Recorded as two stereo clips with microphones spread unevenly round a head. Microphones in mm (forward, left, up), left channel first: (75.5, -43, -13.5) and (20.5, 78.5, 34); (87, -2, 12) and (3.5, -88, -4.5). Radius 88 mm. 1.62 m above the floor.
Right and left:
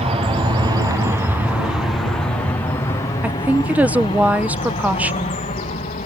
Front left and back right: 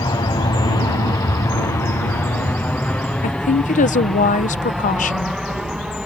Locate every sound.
0.0 s an aircraft: 80° left; by 6.1 s 50° right
3.2 s a woman speaking: 35° left